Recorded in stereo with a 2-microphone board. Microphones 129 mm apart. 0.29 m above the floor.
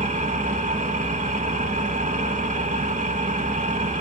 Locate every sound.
0.0 s an engine running: 75° right (ahead or behind), 0.9 m